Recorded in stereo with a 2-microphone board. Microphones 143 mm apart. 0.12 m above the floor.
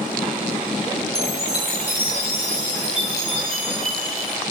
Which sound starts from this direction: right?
A chime, at 1.1 s.